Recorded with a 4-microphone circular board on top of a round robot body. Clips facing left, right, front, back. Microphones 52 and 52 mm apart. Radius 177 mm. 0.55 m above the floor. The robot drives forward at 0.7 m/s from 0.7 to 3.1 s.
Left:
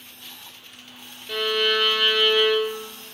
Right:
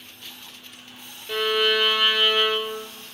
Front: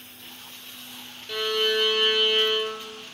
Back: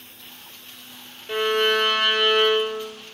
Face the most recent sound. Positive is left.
turn(degrees=-175)